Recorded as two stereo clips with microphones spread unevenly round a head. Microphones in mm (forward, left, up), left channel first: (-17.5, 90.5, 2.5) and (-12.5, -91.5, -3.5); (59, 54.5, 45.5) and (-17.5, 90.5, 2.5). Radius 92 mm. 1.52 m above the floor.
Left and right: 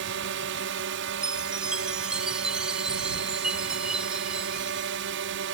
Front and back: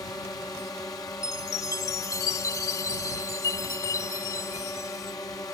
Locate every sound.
0.0 s a drone: 95° right
1.2 s a chime: straight ahead